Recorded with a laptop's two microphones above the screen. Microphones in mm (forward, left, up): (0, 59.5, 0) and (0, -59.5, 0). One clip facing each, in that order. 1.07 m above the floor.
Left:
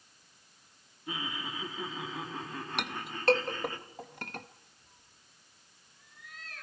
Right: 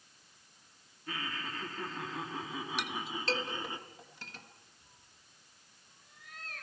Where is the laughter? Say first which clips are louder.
Left 2 dB; 20° left (ahead or behind), 2.5 m; by 3.8 s 20° right (ahead or behind), 2.5 m.